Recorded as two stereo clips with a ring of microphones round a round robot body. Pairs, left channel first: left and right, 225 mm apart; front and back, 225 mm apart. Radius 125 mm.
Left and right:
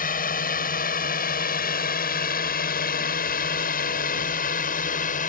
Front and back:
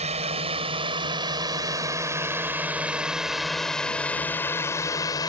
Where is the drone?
125° left; by 5.3 s 65° left.